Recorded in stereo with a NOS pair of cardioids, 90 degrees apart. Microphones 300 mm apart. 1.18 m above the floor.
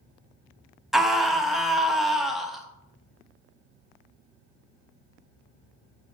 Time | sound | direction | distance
0.9 | a scream | straight ahead | 1.0 m